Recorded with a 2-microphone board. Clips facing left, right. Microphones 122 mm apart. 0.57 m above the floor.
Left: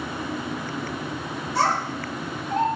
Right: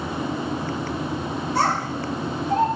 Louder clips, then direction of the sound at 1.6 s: Even; 55° right (ahead or behind).